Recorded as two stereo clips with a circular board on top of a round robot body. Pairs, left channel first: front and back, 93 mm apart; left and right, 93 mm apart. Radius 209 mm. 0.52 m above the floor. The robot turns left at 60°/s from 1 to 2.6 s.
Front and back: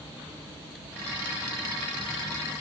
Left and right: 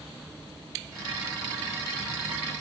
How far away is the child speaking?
I don't hear a child speaking.